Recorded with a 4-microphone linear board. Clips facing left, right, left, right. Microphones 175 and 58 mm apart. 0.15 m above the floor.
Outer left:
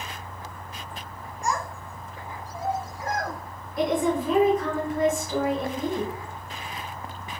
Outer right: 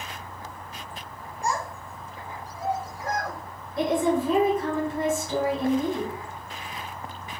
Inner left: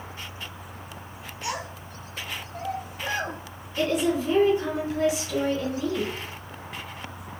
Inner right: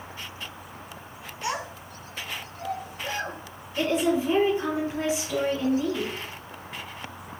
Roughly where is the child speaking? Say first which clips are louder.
Even, inner right 2 dB; right.